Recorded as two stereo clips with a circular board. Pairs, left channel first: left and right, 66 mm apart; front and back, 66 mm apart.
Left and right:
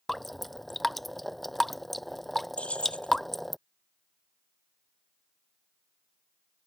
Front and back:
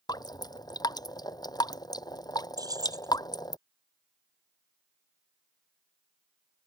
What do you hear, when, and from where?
0.1 s dripping: straight ahead
2.6 s keys jangling: 165° left